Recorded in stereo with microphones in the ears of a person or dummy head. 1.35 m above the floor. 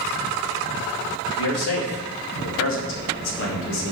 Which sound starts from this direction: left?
A man speaking, at 1.4 s.